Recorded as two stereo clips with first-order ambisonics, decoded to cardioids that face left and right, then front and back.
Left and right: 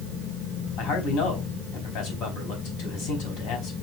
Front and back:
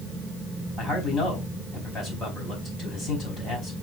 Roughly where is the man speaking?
Left.